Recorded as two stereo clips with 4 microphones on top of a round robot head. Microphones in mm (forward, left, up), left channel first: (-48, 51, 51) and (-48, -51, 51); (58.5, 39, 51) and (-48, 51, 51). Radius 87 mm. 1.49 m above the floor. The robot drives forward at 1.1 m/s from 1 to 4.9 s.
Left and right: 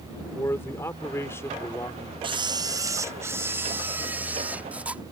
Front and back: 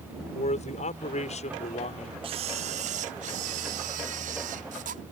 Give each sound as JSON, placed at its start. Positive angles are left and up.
{"t": 0.3, "sound": "a man speaking", "azimuth_deg": 15}
{"t": 2.2, "sound": "a camera shutter", "azimuth_deg": -135}